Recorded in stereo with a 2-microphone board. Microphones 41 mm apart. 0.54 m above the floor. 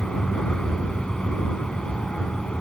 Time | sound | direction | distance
0.0 | an aircraft | 20° left (ahead or behind) | ?